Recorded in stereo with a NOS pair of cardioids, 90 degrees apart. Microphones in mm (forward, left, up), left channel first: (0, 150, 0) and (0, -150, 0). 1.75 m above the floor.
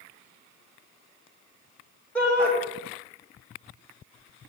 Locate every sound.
2.1 s a shout: 5° left, 5.5 m